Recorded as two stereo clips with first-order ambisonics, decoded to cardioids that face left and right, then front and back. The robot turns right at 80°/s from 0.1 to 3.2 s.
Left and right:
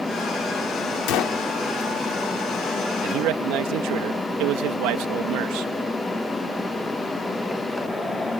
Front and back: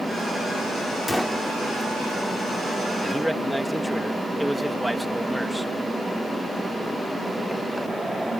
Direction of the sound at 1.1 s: 85° left.